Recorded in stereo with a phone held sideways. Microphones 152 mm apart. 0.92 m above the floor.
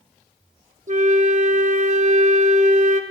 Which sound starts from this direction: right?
A flute, at 0.9 s.